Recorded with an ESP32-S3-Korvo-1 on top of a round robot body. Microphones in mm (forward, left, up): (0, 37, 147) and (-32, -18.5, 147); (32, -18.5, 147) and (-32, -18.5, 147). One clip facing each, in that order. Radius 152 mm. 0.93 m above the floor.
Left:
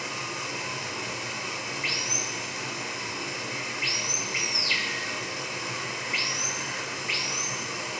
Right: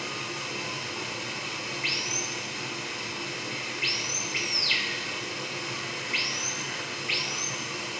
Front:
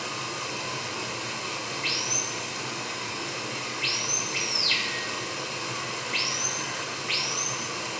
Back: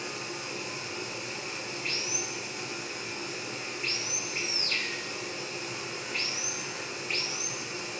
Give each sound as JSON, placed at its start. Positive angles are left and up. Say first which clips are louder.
{"t": 0.0, "sound": "running water", "louder": "left 1 dB, front 4 dB", "azimuth_deg": -15, "distance_m": 1.5}